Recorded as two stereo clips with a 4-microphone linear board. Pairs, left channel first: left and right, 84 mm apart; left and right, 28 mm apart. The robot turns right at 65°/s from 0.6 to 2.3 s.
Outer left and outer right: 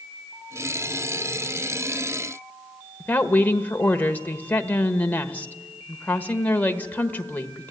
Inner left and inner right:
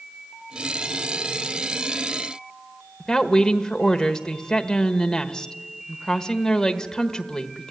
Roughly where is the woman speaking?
Left.